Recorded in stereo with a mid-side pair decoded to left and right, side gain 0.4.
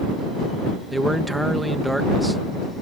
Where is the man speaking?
5° right.